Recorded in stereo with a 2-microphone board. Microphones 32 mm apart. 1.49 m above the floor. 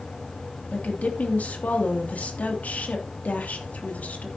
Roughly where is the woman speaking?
Left.